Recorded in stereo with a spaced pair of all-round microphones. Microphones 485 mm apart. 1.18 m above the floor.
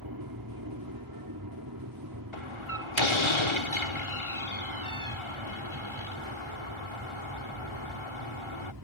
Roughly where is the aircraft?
Right.